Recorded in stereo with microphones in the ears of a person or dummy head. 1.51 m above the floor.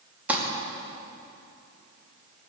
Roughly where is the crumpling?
Centre.